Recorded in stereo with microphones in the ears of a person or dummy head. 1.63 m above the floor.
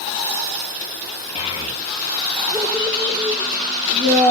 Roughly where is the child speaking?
Left.